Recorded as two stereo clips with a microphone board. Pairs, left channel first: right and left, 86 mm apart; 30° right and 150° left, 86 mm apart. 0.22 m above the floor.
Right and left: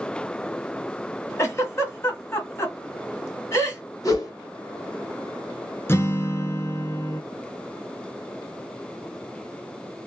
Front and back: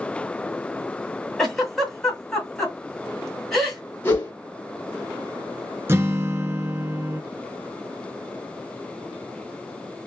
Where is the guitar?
150° right, 0.6 m.